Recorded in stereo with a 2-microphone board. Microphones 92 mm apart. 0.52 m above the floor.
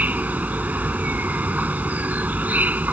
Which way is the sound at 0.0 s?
20° right (ahead or behind).